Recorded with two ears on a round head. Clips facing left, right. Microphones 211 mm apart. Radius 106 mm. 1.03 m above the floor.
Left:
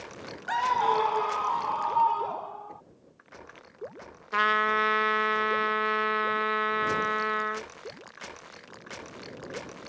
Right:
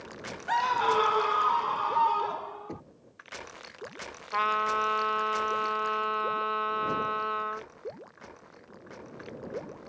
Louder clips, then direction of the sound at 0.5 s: Even; 5° left (ahead or behind).